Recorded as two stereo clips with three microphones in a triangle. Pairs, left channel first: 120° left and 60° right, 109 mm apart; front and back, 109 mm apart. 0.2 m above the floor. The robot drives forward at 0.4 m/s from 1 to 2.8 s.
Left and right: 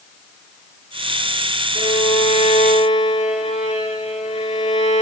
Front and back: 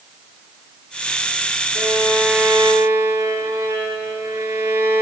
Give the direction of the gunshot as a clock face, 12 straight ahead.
I don't hear a gunshot.